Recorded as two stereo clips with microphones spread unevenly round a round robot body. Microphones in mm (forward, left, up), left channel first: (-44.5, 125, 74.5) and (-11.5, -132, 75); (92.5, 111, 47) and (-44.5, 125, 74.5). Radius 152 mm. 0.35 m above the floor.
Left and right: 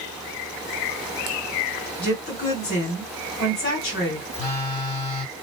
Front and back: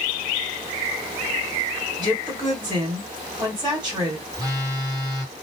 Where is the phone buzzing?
130° left, 1.6 m.